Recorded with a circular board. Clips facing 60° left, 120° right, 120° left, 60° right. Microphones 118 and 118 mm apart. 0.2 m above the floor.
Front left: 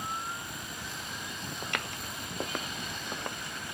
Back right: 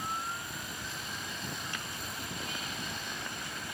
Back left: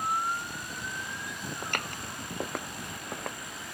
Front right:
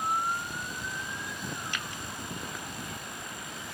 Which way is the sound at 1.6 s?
80° left.